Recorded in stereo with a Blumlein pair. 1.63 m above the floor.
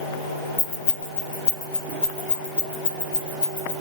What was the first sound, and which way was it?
Keys jangling, 70° left.